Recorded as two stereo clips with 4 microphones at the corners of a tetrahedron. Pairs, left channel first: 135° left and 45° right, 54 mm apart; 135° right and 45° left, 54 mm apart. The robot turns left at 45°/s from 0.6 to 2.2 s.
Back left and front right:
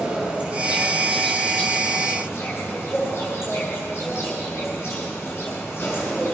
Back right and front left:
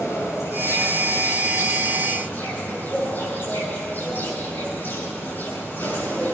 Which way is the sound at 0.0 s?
115° right.